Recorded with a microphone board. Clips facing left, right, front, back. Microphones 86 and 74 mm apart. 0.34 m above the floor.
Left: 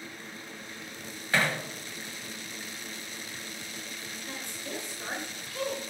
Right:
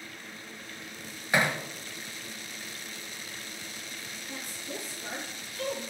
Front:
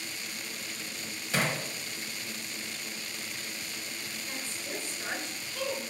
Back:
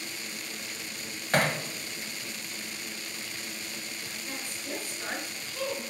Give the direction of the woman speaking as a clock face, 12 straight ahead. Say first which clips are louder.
Left 1 dB, back 2 dB; 9 o'clock.